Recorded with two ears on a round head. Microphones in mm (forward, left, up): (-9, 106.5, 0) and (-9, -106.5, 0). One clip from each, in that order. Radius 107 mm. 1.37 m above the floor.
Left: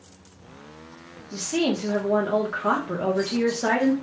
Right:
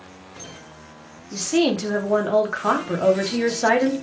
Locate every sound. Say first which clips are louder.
1.3 s a woman speaking: right 4 dB; 20° right (ahead or behind), 0.6 m